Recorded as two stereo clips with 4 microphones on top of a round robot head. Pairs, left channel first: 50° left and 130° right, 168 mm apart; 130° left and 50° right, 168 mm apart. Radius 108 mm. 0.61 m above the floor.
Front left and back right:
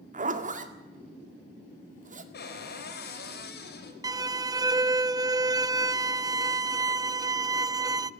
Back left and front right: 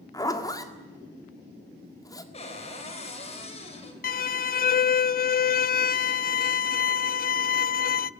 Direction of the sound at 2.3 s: 75° left.